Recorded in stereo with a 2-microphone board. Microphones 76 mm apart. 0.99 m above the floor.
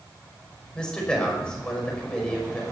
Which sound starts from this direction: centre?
A man speaking, at 0.8 s.